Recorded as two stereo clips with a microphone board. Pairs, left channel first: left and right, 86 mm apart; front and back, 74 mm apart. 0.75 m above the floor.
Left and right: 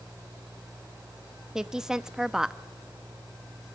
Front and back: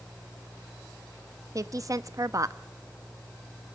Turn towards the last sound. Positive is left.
turn(degrees=-170)